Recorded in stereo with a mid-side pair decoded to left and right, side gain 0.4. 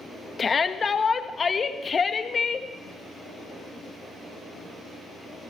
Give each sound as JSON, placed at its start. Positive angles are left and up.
{"t": 0.4, "sound": "a shout", "azimuth_deg": 40, "distance_m": 1.3}